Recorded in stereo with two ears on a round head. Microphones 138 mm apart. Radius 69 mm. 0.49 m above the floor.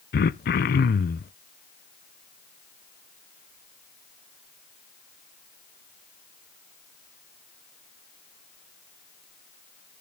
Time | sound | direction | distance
0.1 | throat clearing | 65° left (ahead or behind) | 0.5 m